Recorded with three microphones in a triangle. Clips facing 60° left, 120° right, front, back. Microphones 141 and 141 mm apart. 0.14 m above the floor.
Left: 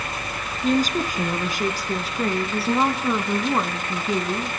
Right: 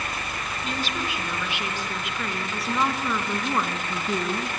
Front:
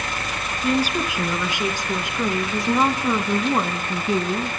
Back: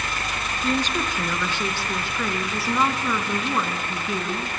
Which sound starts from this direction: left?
A woman speaking, at 0.6 s.